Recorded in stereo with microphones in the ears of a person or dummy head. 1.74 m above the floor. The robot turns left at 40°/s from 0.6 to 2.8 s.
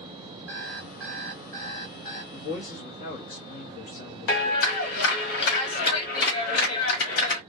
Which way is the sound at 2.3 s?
35° left (ahead or behind).